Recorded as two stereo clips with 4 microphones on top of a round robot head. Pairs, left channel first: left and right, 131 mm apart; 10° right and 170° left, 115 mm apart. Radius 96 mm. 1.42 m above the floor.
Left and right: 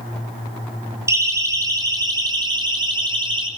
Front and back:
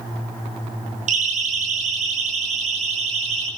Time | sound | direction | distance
1.1 | a siren | 160° right | 5 m